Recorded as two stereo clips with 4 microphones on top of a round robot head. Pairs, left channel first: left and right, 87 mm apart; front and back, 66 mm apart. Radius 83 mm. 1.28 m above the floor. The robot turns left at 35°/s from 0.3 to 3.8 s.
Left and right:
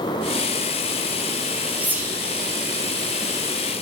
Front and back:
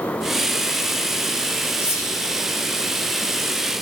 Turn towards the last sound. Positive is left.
turn(degrees=-90)